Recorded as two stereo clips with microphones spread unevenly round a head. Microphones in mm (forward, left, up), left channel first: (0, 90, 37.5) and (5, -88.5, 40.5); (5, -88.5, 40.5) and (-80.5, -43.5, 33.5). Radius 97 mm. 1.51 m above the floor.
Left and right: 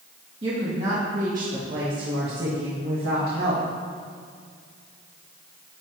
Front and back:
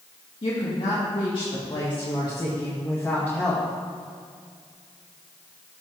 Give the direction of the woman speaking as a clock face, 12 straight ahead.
1 o'clock.